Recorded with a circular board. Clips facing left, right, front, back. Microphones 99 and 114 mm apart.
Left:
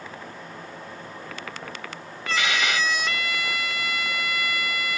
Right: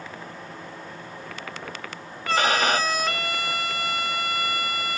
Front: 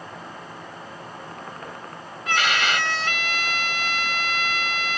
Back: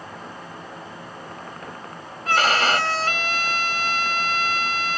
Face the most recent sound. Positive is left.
turn(degrees=-135)